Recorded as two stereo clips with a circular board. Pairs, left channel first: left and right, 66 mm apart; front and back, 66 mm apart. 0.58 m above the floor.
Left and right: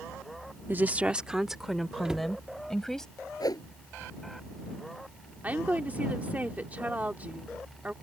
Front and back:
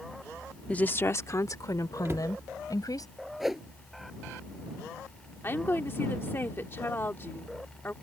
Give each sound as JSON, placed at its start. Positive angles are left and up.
{"t": 0.7, "sound": "a woman speaking", "azimuth_deg": -60}
{"t": 2.0, "sound": "a cupboard door", "azimuth_deg": -165}
{"t": 3.4, "sound": "a whoosh", "azimuth_deg": 95}
{"t": 5.4, "sound": "a woman speaking", "azimuth_deg": -35}